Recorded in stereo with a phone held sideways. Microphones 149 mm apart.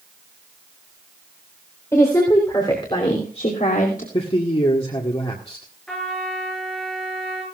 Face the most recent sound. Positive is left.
turn(degrees=5)  # may be behind; listen again after turning